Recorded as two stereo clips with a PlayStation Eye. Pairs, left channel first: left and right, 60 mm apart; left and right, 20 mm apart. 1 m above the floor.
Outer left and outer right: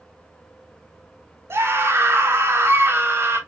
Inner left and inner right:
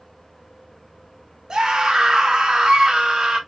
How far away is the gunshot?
No gunshot in this recording.